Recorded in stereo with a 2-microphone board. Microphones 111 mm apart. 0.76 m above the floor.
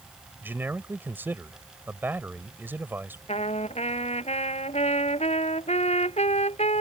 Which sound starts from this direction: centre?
A man speaking, at 0.4 s.